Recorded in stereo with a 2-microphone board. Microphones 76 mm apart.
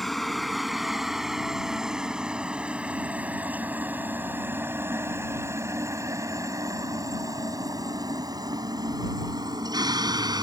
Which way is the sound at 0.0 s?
Centre (ahead or behind).